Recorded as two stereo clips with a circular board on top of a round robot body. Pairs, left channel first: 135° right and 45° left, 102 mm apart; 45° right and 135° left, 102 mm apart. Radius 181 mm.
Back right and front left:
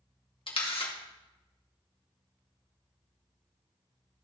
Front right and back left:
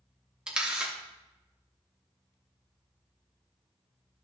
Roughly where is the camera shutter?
Behind right.